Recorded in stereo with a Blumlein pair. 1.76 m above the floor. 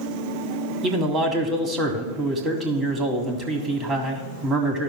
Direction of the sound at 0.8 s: 20° right.